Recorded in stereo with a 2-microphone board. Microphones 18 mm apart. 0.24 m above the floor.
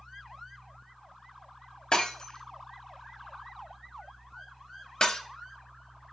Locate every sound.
1.9 s breaking glass: 50° left (ahead or behind), 0.9 m